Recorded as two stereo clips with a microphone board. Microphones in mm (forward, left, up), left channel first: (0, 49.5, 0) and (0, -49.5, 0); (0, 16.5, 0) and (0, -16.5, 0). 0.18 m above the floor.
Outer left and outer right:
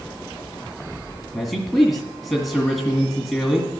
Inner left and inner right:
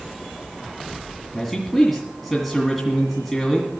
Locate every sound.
1.3 s a man speaking: centre (ahead or behind), 1.8 m